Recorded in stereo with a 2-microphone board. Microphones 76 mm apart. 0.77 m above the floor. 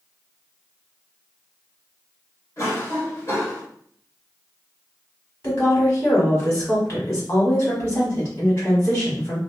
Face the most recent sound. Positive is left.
turn(degrees=40)  # may be behind; listen again after turning